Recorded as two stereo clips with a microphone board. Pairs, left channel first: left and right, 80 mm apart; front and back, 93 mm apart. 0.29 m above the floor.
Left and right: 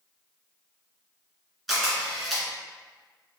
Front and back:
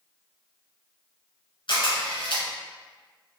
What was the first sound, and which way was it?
A camera shutter, 5° right.